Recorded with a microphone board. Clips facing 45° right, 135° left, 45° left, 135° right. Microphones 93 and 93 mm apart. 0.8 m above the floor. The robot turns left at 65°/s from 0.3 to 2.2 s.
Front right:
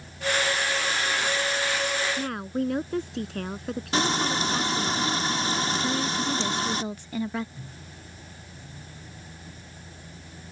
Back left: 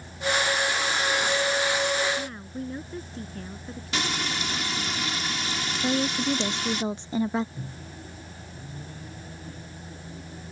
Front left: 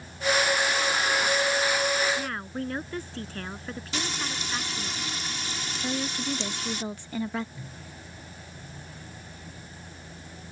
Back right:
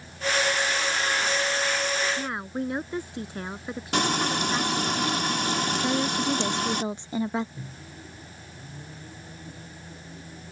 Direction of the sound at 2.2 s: 60° right.